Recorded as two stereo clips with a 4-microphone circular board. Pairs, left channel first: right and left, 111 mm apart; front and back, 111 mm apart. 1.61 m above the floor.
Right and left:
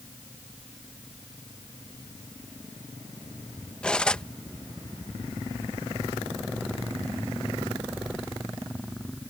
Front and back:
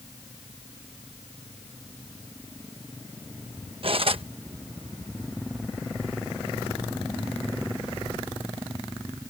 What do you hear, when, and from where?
3.8 s cutlery clinking: 170° right